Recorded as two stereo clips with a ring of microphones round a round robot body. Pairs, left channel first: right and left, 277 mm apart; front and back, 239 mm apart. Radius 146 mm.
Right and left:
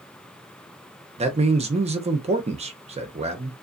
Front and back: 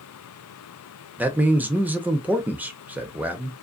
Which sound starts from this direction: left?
A man speaking, at 1.2 s.